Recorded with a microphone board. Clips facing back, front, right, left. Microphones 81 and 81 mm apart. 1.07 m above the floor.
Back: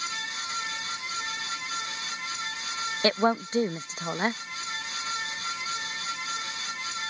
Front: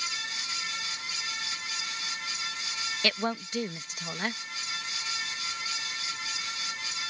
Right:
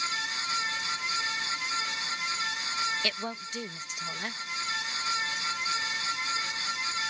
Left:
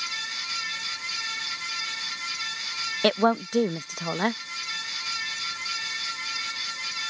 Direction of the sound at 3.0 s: 125° left.